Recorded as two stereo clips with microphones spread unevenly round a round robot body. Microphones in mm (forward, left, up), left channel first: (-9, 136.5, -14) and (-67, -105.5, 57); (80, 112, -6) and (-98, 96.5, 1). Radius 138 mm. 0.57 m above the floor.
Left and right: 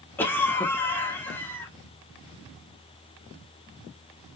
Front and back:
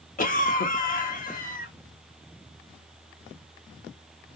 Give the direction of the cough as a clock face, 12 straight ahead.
12 o'clock.